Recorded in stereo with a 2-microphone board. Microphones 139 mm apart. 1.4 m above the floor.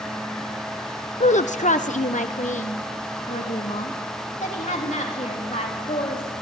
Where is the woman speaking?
55° left (ahead or behind), 0.6 m.